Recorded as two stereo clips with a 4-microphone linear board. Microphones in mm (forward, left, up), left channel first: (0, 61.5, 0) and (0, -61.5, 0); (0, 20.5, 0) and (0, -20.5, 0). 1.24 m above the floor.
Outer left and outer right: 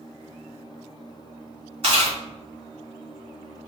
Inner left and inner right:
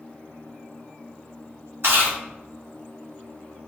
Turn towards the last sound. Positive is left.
turn(degrees=-50)  # may be behind; listen again after turning